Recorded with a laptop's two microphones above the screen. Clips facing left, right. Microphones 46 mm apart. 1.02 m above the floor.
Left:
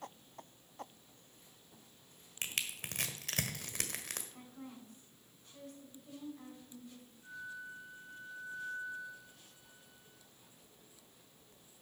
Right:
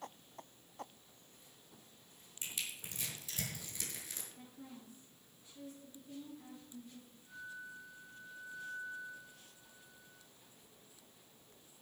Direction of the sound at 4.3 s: 60° left (ahead or behind).